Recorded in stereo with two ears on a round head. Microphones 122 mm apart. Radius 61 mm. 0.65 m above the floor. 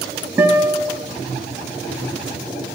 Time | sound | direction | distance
0.4 | a guitar | 10° right (ahead or behind) | 1.9 m